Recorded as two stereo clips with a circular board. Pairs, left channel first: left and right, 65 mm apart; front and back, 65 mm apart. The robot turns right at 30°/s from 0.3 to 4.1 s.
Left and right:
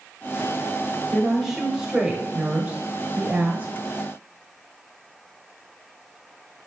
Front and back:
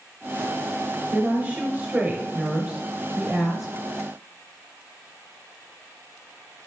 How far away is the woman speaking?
About 1.0 m.